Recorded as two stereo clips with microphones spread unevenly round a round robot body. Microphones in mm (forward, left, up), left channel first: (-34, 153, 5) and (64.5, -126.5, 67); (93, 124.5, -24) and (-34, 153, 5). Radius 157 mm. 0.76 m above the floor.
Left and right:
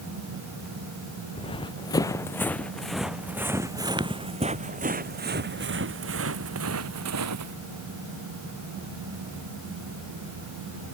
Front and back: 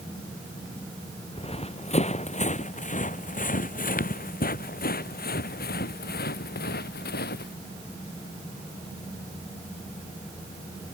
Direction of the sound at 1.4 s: 35° left.